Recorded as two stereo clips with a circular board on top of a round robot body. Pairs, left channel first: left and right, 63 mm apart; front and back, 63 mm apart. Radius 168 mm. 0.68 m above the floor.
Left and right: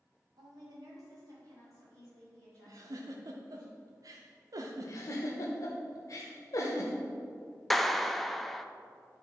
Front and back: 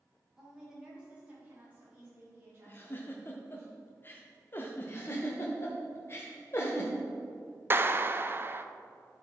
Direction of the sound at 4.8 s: 50° left.